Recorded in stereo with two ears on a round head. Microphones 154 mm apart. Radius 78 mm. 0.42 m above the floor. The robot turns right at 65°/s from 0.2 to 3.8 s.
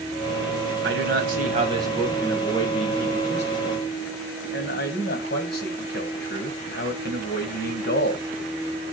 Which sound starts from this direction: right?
A man speaking, at 0.8 s.